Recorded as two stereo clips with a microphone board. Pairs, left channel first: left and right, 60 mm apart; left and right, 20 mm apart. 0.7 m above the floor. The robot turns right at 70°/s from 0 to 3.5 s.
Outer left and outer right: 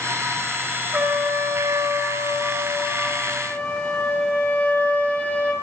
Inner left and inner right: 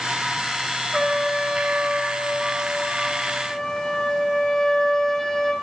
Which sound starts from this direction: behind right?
A trumpet, at 0.9 s.